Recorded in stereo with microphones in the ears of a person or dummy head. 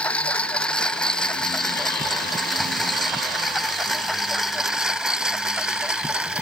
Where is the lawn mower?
5° left (ahead or behind); by 6.4 s 5° right (ahead or behind).